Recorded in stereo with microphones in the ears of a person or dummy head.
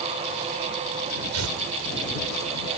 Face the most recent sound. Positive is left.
turn(degrees=-85)